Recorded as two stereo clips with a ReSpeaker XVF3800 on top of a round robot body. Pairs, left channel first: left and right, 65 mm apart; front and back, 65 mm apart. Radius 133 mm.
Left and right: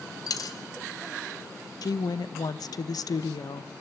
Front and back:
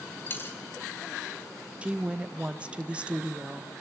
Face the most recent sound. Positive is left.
turn(degrees=110)